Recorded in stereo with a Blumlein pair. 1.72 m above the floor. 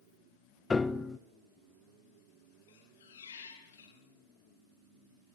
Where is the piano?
10° left, 0.9 m.